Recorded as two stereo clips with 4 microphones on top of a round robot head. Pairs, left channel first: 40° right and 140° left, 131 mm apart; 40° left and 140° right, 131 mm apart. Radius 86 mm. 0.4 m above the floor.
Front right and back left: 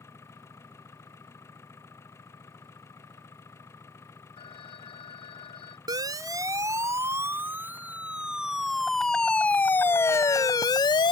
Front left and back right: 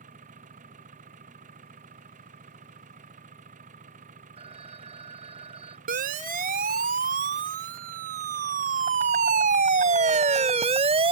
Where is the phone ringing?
95° right.